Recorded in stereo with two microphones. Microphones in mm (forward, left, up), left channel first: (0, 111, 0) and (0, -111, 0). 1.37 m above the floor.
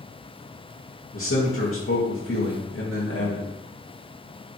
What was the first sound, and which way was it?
A man speaking, 65° left (ahead or behind).